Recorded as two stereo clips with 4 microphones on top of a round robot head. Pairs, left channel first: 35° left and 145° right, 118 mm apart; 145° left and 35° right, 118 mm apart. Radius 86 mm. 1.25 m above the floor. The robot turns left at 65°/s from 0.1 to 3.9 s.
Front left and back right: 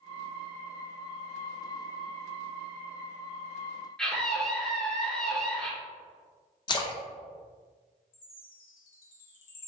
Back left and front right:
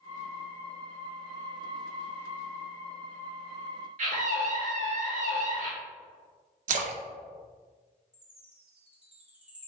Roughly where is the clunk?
No clunk in this recording.